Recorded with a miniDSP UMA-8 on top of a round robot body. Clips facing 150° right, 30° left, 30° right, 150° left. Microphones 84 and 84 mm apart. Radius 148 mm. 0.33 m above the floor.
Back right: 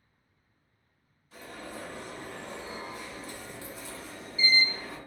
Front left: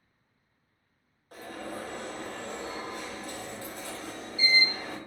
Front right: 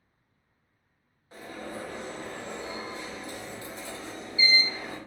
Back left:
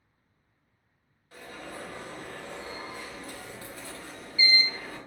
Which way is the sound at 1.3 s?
35° left.